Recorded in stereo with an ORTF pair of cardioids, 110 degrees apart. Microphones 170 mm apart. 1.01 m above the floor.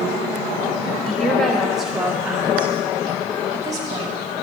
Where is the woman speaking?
5° left, 3 m; by 4.1 s 30° right, 2.5 m.